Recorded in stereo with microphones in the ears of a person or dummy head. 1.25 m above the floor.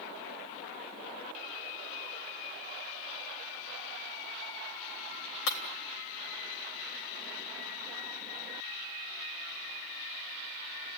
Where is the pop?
I don't hear a pop.